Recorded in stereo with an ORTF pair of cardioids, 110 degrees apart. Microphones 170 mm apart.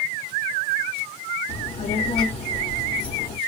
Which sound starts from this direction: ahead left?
A child speaking, at 1.5 s.